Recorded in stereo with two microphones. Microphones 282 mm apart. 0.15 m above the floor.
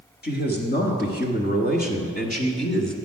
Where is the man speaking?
35° left (ahead or behind), 1.9 m; by 3.0 s 20° left (ahead or behind), 1.1 m.